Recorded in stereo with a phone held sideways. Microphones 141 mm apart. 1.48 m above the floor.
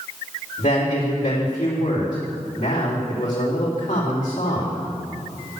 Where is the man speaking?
65° left (ahead or behind), 3.5 m.